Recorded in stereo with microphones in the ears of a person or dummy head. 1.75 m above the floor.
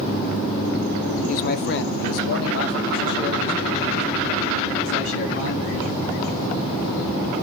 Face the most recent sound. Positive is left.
turn(degrees=65)  # may be behind; listen again after turning